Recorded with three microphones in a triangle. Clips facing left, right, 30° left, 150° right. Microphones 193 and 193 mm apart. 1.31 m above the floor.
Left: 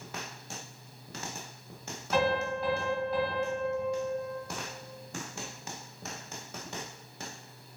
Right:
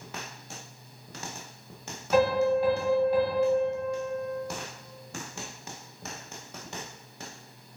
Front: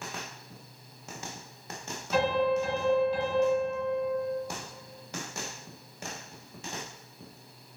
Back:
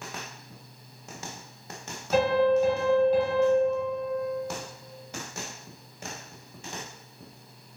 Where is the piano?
155° right, 1.5 m.